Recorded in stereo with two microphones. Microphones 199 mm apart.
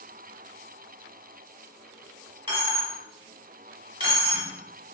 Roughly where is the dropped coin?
Right.